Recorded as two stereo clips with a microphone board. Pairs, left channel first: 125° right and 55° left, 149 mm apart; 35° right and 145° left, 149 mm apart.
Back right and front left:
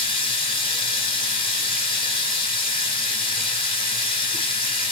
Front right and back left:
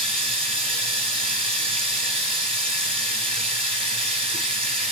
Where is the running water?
170° right, 1.5 m.